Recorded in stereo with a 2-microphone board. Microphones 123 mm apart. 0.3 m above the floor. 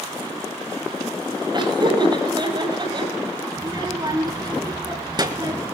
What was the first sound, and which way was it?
Laughter, 35° right (ahead or behind).